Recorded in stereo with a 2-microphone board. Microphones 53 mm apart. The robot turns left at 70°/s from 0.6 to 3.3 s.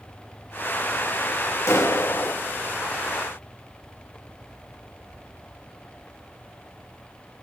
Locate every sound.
1.7 s a clap: 120° left, 1.9 m; by 2.4 s 70° left, 1.9 m